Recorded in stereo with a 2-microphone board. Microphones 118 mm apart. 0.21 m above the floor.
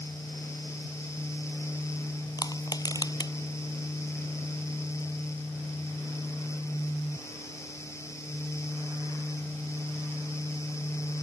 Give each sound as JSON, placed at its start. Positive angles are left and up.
{"t": 2.4, "sound": "crushing", "side_deg": 35}